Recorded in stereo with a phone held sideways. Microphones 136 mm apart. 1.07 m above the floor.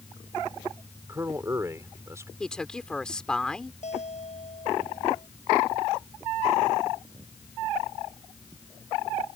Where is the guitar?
50° left (ahead or behind).